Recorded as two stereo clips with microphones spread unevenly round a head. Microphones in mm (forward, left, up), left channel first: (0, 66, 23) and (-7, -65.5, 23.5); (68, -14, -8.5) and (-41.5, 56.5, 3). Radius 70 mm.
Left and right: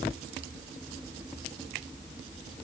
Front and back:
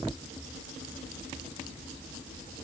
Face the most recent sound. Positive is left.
No sound to turn to.